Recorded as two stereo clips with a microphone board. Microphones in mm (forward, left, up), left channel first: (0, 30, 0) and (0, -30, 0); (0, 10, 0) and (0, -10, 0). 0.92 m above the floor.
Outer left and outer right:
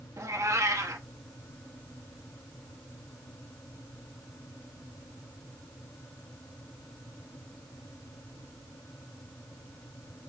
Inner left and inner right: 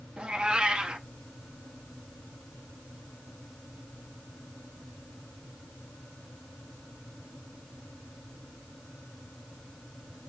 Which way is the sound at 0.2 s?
55° right (ahead or behind).